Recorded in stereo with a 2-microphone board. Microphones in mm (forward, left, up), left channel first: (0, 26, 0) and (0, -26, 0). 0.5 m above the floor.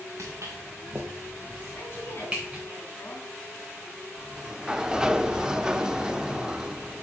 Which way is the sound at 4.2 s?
15° right (ahead or behind).